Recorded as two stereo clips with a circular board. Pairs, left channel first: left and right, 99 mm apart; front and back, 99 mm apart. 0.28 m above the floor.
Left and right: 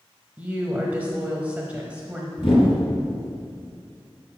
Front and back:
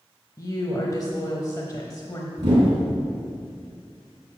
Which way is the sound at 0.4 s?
25° right.